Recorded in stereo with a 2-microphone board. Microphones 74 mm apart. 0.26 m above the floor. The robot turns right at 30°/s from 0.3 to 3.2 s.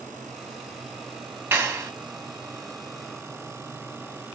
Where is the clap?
30° right (ahead or behind), 1.9 m; by 1.9 s 35° right (ahead or behind), 1.9 m.